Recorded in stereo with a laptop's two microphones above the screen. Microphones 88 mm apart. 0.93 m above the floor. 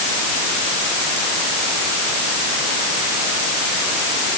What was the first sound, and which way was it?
Only background noise.